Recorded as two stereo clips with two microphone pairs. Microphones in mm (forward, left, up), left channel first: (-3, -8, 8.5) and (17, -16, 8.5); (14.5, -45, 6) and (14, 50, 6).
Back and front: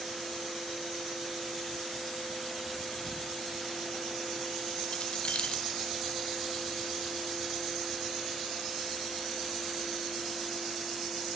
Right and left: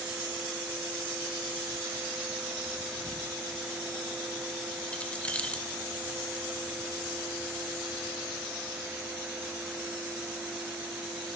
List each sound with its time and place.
4.9 s keys jangling: 165° right, 1.4 m